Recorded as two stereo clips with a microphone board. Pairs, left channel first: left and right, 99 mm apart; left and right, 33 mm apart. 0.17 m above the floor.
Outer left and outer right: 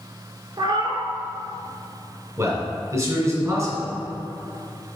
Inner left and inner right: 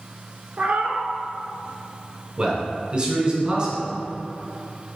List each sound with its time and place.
0.6 s a cat meowing: 50° right (ahead or behind), 0.6 m
2.4 s a man speaking: 30° right (ahead or behind), 2 m